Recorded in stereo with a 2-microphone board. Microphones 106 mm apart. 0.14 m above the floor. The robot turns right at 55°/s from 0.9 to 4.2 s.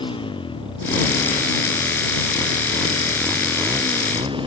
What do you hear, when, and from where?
0.0 s a motorcycle: 55° left; by 4.5 s 125° right